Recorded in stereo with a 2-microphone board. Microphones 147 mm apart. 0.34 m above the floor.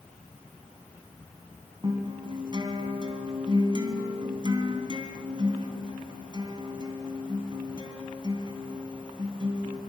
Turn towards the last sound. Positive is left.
turn(degrees=-35)  # may be behind; listen again after turning